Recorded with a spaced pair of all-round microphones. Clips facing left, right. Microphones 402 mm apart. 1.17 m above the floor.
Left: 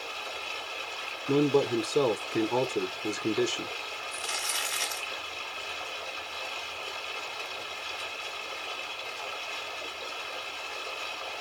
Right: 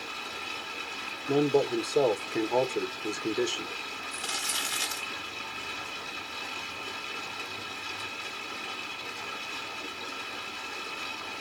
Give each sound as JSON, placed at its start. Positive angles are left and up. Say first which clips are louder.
{"t": 0.0, "sound": "running water", "louder": "left 1 dB", "side_deg": -75, "distance_m": 3.5}
{"t": 1.3, "sound": "a man speaking", "louder": "left 1 dB", "side_deg": 20, "distance_m": 0.7}
{"t": 4.1, "sound": "crumpling", "louder": "even", "side_deg": -55, "distance_m": 1.7}